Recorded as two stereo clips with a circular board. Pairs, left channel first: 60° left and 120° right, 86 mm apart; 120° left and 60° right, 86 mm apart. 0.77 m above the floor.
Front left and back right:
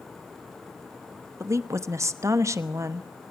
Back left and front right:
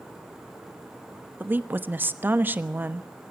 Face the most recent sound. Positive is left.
turn(degrees=-110)